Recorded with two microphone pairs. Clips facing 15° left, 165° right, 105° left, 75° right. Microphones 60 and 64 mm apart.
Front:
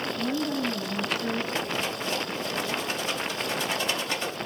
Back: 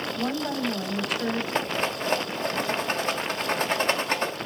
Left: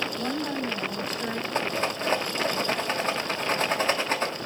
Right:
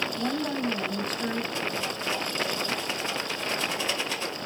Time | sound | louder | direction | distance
0.1 | a woman speaking | even, even | 160° right | 5.5 m
1.6 | a rattle | back 3 dB, left 4 dB | 150° left | 1.7 m